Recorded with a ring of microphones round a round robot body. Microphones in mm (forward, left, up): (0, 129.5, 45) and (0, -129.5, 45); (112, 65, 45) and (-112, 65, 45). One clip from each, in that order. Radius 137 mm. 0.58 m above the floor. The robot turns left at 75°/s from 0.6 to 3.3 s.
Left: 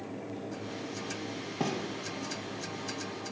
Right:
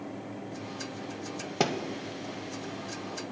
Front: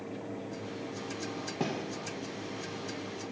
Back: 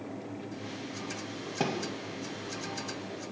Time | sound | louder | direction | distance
1.6 | a thud | right 5 dB, back 3 dB | 115° right | 0.6 m